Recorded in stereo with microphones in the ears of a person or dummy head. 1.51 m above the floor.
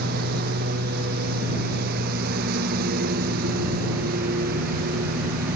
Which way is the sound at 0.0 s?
60° right (ahead or behind).